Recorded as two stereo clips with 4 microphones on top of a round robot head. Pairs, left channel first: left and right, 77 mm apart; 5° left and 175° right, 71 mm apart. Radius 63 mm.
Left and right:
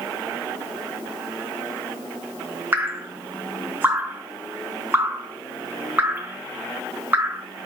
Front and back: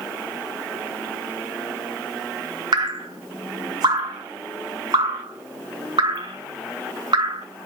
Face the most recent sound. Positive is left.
turn(degrees=-160)